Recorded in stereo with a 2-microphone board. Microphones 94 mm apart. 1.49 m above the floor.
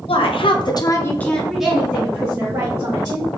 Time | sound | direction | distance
0.1 | a woman speaking | 80° left | 0.7 m